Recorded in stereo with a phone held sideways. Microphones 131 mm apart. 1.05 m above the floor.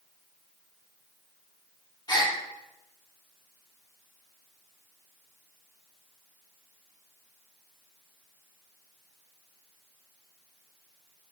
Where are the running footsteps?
I don't hear running footsteps.